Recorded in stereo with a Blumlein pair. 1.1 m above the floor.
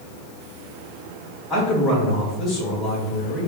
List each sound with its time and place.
1.5 s a man speaking: 15° left, 1.9 m